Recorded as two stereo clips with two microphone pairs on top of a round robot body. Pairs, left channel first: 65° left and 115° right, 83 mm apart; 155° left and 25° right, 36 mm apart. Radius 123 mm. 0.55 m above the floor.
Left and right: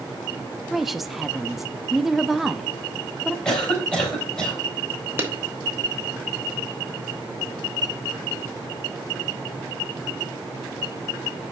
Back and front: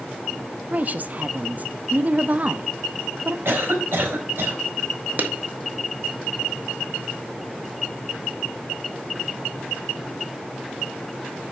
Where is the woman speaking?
30° right, 0.7 m.